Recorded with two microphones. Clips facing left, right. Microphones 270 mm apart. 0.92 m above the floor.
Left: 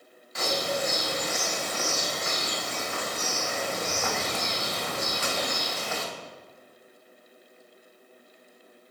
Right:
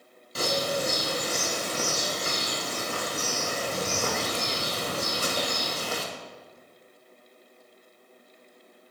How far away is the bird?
About 0.7 m.